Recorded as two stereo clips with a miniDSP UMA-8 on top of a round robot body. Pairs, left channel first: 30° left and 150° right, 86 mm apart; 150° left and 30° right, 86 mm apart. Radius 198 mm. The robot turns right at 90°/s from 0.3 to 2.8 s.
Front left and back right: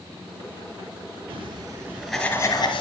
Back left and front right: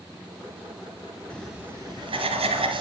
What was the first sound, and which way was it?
Writing, 135° right.